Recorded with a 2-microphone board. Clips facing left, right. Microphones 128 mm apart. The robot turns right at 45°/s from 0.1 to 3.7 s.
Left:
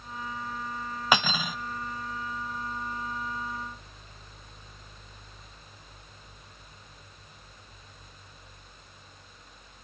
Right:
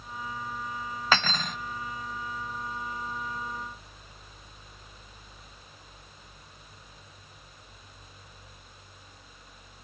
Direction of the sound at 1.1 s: 15° left (ahead or behind).